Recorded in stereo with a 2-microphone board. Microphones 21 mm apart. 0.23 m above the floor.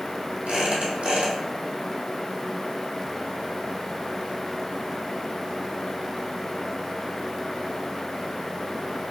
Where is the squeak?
75° right (ahead or behind), 1.3 m.